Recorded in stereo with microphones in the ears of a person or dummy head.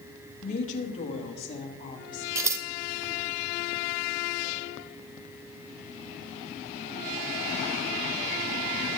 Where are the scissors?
15° right (ahead or behind), 0.8 m.